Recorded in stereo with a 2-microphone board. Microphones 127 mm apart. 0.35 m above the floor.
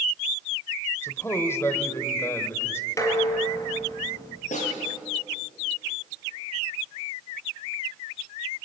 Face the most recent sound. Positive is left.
turn(degrees=70)  # may be behind; listen again after turning